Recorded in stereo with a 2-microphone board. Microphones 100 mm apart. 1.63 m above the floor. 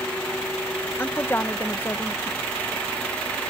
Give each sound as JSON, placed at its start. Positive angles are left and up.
{"t": 1.0, "sound": "a woman speaking", "side_deg": 20}